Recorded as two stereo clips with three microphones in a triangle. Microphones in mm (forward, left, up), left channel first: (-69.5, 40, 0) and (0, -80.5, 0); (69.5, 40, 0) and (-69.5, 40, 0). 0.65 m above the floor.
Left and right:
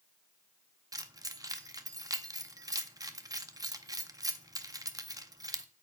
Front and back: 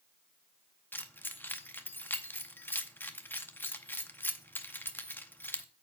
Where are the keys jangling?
55° right, 0.6 m.